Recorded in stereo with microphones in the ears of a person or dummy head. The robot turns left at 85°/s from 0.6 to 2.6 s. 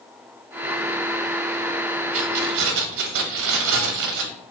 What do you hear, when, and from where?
2.1 s keys jangling: 35° right, 0.8 m; by 4.3 s 75° right, 0.8 m